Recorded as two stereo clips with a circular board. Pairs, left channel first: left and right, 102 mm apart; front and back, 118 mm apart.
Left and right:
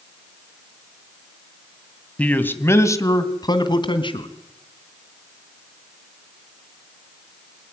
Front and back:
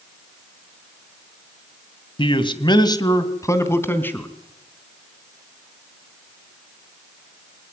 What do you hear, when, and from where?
2.2 s a man speaking: 15° left, 2 m; by 4.3 s 75° left, 3 m